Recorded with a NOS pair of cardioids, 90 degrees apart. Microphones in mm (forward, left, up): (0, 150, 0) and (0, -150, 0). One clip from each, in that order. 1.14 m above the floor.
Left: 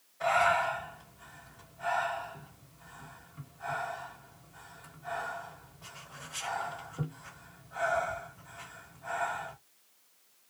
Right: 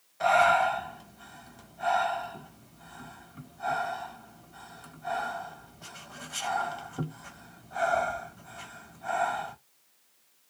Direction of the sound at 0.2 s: 55° right.